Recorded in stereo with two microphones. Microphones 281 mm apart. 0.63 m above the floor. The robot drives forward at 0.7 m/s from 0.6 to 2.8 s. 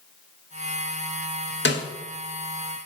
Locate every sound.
1.6 s a snare drum: 40° left (ahead or behind), 1.2 m